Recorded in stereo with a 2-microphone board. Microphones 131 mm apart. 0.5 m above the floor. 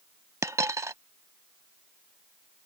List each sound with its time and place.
0.4 s a dropped coin: 25° right (ahead or behind)